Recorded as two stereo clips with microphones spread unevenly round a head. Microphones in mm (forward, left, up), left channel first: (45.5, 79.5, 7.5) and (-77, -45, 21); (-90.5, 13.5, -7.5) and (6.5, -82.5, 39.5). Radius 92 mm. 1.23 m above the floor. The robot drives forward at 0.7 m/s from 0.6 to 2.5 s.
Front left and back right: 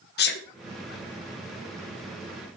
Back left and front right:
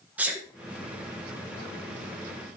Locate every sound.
0.2 s a sneeze: 45° left, 1.1 m